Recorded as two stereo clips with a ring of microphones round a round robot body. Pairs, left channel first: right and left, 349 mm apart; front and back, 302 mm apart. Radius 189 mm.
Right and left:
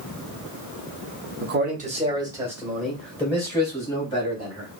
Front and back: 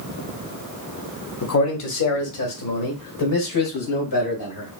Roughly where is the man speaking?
Ahead left.